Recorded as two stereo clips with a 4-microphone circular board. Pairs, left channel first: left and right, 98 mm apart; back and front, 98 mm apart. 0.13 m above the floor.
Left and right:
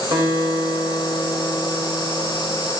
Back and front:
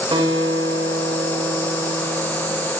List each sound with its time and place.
0.1 s a guitar: 45° right, 8.5 m